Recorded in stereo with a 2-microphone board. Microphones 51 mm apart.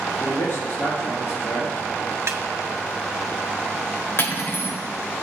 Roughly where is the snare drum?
Right.